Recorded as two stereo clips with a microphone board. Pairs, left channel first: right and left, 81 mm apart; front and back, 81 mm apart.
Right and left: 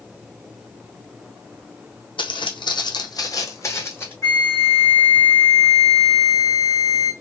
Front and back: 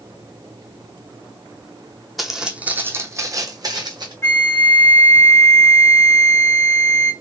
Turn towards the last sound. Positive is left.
turn(degrees=-50)